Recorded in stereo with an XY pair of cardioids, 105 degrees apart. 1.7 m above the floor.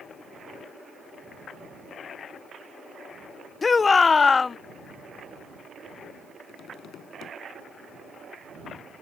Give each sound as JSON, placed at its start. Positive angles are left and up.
{"t": 3.6, "sound": "a shout", "azimuth_deg": 30}
{"t": 6.5, "sound": "tapping", "azimuth_deg": 65}